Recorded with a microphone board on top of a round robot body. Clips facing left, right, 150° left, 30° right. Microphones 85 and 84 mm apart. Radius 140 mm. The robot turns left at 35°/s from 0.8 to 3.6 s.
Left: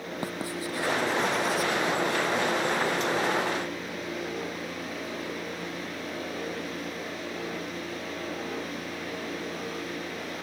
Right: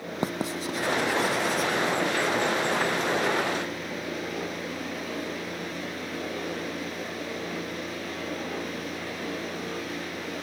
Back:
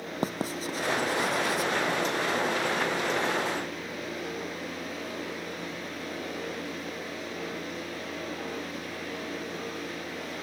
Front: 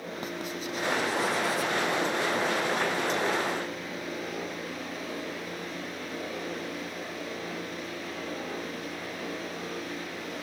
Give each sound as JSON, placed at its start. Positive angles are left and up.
{"t": 0.2, "sound": "writing", "azimuth_deg": -160}